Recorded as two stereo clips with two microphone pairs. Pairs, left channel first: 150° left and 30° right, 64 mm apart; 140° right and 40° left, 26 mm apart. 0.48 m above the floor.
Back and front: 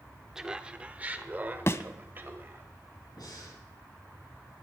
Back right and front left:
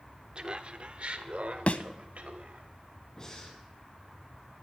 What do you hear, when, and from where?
0.3 s laughter: 40° left, 0.8 m; by 2.7 s 20° left, 2.0 m
1.7 s a thud: 165° right, 0.6 m
3.2 s breathing: 160° left, 5 m